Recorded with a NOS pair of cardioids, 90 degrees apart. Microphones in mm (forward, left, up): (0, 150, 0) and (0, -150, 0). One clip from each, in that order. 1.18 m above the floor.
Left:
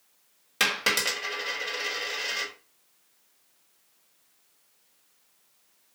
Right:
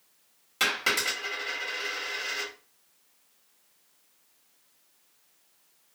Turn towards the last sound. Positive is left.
turn(degrees=40)